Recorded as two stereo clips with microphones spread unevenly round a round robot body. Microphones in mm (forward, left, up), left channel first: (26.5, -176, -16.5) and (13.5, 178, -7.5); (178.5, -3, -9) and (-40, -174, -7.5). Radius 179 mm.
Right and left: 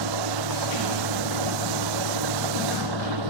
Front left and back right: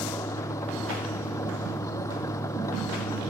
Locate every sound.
0.0 s an engine running: 120° left